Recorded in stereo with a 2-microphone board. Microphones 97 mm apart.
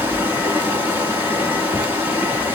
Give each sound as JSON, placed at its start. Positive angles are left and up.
{"t": 0.0, "sound": "running water", "side_deg": -25, "distance_m": 1.2}